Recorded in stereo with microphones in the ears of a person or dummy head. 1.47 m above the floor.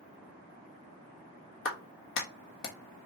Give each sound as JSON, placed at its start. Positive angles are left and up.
{"t": 1.6, "sound": "a clap", "side_deg": 65, "distance_m": 1.3}